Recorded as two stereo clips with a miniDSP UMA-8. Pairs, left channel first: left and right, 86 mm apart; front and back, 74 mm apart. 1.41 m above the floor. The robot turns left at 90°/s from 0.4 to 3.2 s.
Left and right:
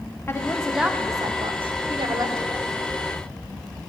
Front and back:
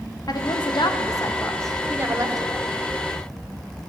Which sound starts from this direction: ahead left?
A woman speaking, at 0.3 s.